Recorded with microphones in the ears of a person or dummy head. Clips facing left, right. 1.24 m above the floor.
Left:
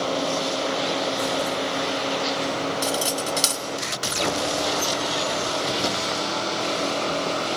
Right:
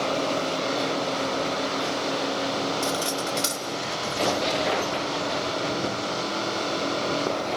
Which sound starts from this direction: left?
Cutlery clinking, at 2.8 s.